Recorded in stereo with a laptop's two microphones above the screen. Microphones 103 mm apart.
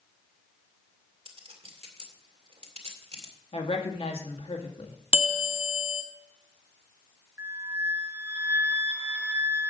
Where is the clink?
85° right, 2 m.